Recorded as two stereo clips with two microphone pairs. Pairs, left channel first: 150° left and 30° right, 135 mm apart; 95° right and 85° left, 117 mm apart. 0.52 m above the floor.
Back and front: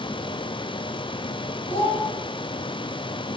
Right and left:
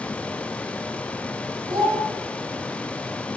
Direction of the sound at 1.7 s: 120° left.